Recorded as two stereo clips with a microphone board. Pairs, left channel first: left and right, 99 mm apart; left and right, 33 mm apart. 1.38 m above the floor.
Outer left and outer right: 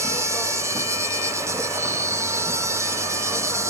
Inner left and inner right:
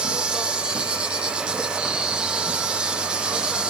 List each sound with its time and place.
0.0 s an insect: 25° right (ahead or behind), 0.8 m